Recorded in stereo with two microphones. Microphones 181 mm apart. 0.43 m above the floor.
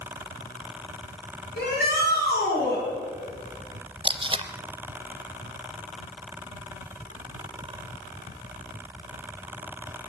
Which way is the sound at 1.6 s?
70° left (ahead or behind).